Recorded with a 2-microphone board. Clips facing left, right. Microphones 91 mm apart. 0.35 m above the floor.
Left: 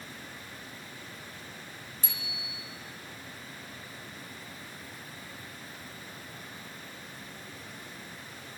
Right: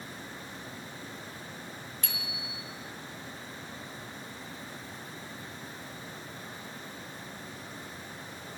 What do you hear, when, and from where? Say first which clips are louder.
2.0 s a bicycle bell: right 2 dB; 75° right (ahead or behind), 3 m